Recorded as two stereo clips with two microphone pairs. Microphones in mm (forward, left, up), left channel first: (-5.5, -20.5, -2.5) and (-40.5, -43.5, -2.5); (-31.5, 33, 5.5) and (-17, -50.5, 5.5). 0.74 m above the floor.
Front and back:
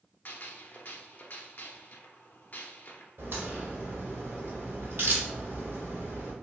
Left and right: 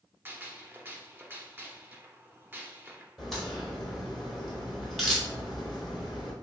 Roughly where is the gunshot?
Ahead.